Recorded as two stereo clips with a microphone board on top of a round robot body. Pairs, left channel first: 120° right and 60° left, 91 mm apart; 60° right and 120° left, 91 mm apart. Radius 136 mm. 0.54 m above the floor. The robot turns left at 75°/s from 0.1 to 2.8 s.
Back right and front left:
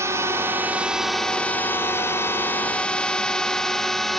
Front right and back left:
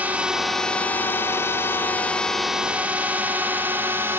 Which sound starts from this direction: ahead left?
A drone, at 0.0 s.